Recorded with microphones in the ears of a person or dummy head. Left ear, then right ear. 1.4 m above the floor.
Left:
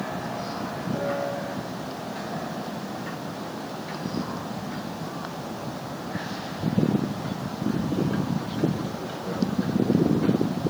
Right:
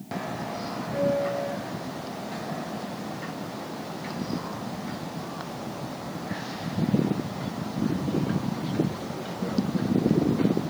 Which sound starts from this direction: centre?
A piano, at 0.9 s.